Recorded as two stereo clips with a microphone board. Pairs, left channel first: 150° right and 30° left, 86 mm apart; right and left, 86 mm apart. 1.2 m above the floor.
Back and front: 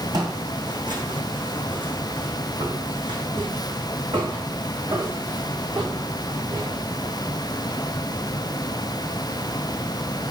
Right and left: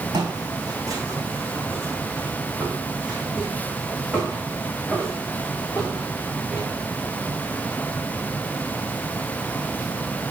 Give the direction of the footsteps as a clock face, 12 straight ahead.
10 o'clock.